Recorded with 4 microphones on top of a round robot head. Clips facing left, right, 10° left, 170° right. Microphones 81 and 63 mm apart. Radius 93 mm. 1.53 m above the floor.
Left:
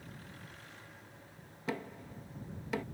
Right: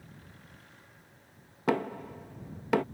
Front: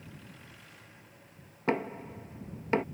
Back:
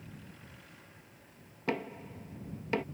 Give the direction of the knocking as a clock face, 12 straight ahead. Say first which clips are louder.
Right 11 dB, front 4 dB; 2 o'clock.